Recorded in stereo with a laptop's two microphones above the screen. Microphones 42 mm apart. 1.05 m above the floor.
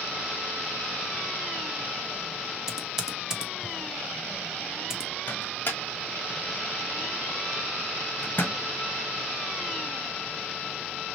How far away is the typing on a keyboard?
About 0.8 m.